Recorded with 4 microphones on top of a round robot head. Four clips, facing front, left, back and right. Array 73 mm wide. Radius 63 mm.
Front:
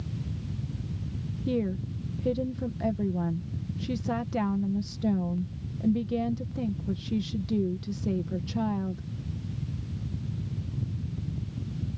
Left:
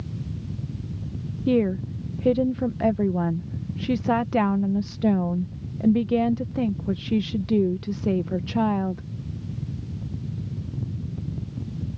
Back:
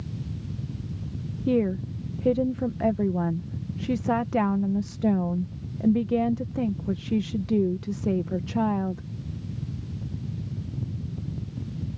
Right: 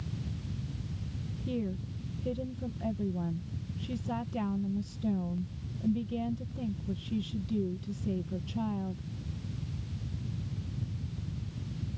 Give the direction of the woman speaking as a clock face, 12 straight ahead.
8 o'clock.